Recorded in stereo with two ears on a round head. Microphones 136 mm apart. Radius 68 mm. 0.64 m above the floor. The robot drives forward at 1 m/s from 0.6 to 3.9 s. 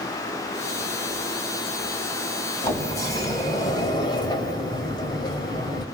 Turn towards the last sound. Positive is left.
turn(degrees=30)  # may be behind; listen again after turning